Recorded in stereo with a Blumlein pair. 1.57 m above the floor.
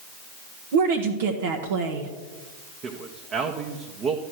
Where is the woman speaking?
55° right, 1.1 m.